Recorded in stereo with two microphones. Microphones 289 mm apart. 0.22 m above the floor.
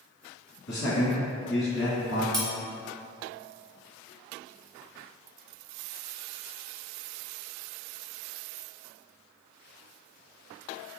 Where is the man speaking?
50° left (ahead or behind), 1.5 m.